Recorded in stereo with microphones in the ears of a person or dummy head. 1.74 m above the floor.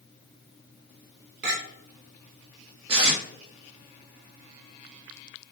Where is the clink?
60° right (ahead or behind), 1.4 m.